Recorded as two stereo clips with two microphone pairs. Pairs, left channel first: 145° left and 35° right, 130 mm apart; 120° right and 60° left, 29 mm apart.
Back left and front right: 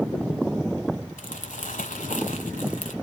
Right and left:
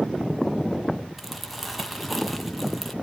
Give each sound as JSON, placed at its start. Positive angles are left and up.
{"t": 1.2, "sound": "crumpling", "azimuth_deg": 150, "distance_m": 1.6}